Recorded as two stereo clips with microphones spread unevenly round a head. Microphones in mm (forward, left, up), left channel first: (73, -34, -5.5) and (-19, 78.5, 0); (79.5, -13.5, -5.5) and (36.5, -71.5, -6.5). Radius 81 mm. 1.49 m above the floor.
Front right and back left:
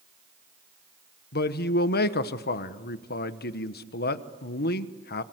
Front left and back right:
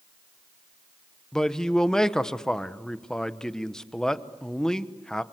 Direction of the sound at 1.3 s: 30° right.